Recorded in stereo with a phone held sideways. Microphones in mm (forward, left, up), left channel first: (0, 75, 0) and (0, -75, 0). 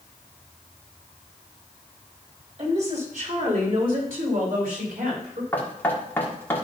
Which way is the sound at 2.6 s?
50° right (ahead or behind).